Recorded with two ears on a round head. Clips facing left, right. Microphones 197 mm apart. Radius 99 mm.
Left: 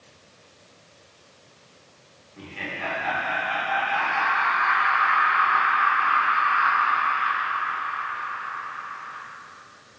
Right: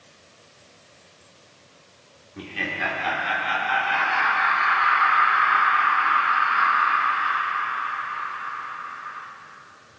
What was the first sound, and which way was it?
Laughter, 55° right (ahead or behind).